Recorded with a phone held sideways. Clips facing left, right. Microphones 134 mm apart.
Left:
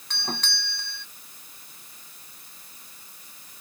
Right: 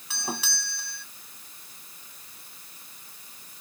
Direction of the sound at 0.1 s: 5° right (ahead or behind).